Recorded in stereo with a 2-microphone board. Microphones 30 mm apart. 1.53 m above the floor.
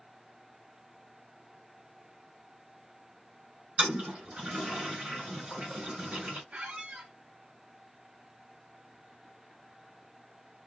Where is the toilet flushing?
40° right (ahead or behind), 1.7 m.